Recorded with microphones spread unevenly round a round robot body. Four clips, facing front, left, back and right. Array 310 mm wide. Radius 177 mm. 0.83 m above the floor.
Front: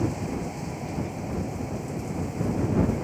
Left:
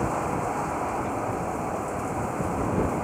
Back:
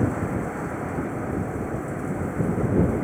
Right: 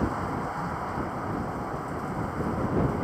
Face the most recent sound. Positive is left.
turn(degrees=150)